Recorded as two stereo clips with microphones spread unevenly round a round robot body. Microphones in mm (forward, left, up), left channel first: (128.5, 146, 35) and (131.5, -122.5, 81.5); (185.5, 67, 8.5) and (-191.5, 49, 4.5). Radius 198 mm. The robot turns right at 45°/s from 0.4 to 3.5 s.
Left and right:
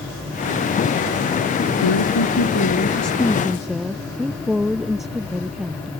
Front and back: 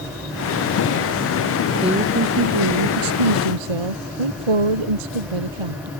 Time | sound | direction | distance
1.8 | a woman speaking | 105° left | ?